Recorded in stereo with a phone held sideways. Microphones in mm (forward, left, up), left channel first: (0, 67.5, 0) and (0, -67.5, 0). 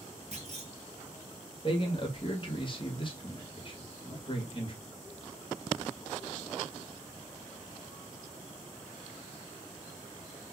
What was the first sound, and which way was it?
A clunk, 50° right (ahead or behind).